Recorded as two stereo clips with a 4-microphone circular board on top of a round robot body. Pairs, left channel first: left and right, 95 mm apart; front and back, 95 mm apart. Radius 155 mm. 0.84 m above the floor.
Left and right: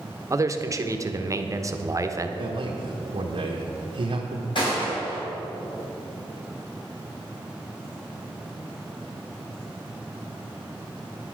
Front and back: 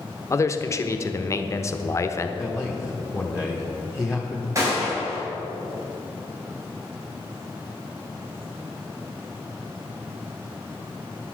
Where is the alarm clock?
I don't hear an alarm clock.